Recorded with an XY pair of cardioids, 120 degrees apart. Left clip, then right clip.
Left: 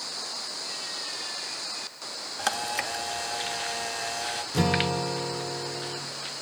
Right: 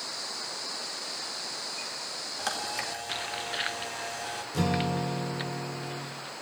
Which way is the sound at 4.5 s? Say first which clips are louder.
Left 4 dB; 30° left.